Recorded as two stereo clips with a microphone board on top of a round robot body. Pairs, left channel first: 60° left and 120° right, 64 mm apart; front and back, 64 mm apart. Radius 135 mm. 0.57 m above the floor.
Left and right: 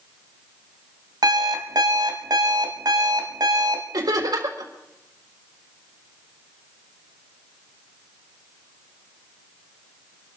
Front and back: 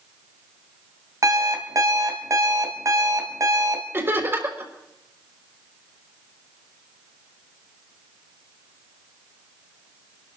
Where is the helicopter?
I don't hear a helicopter.